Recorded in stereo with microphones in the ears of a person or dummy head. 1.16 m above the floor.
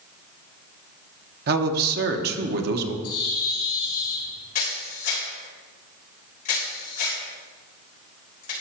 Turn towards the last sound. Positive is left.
turn(degrees=50)  # may be behind; listen again after turning